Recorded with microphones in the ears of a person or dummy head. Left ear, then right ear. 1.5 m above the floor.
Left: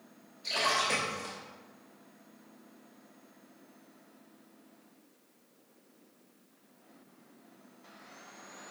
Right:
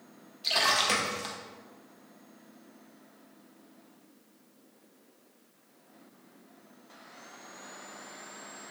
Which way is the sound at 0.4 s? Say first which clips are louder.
Right 4 dB; 25° right (ahead or behind).